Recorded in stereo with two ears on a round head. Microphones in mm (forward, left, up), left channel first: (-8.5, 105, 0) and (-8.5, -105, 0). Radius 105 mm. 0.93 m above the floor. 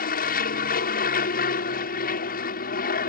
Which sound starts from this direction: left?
An aircraft, at 0.0 s.